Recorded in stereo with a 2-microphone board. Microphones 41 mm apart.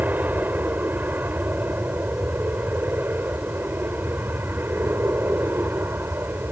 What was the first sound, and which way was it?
An aircraft, 45° right (ahead or behind).